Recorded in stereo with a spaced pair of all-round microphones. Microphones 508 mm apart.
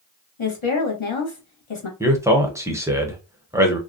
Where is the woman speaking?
70° left (ahead or behind), 1.0 m.